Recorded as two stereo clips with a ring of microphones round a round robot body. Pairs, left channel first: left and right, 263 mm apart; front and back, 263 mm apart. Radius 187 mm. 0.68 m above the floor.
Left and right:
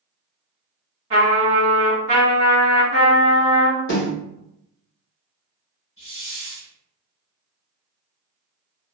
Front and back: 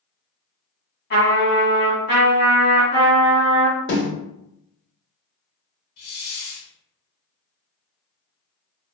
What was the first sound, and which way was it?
A trumpet, 30° right.